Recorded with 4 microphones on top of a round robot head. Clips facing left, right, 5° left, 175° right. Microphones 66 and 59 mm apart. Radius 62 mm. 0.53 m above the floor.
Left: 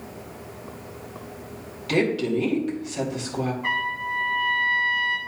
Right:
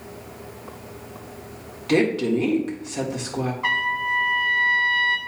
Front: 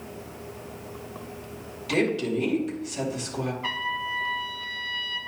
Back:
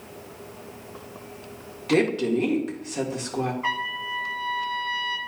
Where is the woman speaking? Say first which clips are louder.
Right 3 dB, back 3 dB; 140° right, 1.9 m.